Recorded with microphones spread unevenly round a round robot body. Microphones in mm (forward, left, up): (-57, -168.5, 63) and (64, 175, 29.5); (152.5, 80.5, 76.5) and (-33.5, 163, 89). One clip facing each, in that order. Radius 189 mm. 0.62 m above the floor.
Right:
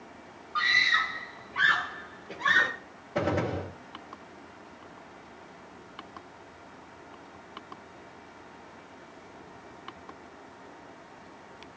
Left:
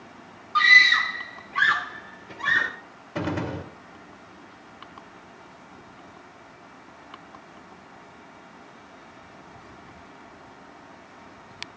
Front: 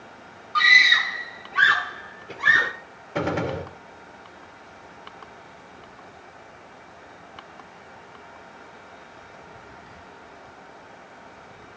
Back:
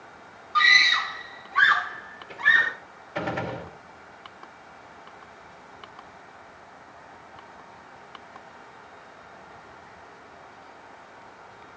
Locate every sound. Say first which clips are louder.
0.6 s a scream: left 7 dB, front 1 dB; 70° left, 1.5 m; by 2.7 s 10° left, 2.0 m
3.1 s a gunshot: even, front 5 dB; 10° left, 2.5 m